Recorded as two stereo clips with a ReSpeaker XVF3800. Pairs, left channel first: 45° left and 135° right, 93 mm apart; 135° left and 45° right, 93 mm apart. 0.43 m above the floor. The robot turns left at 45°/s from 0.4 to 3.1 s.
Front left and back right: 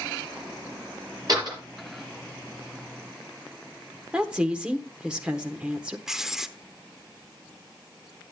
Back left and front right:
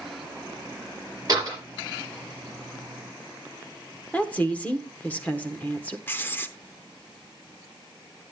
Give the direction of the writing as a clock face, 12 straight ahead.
7 o'clock.